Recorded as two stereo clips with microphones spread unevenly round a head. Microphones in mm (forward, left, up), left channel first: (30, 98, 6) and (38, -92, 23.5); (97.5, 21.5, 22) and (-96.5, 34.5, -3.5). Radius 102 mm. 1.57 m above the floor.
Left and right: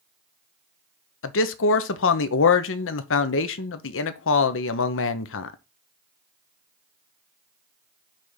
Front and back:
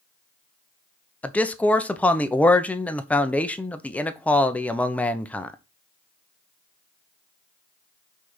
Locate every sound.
1.2 s a man speaking: 80° left, 0.8 m